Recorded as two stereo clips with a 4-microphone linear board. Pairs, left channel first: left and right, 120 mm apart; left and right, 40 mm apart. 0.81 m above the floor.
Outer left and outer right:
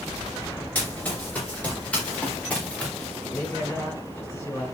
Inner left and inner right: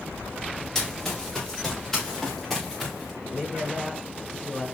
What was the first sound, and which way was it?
Running footsteps, 15° left (ahead or behind).